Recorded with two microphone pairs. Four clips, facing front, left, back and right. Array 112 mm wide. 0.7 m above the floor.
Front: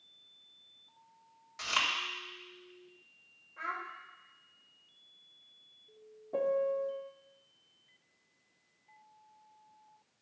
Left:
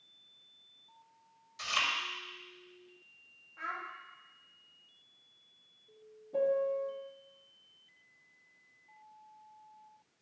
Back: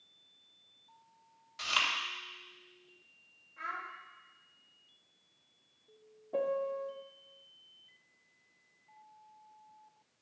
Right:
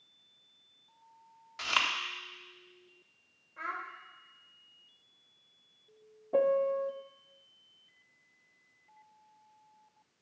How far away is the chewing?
About 1.3 m.